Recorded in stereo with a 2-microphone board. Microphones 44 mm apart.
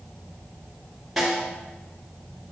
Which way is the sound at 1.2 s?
Centre (ahead or behind).